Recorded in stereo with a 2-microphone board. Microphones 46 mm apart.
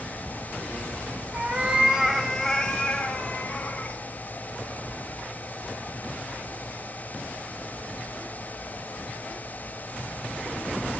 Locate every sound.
1.3 s a cat meowing: 30° right (ahead or behind), 1.3 m; by 4.0 s 35° left (ahead or behind), 2.5 m